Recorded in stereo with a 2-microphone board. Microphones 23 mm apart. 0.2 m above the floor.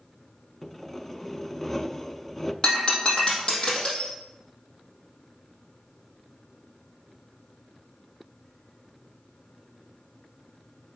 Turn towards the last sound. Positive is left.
turn(degrees=35)  # may be behind; listen again after turning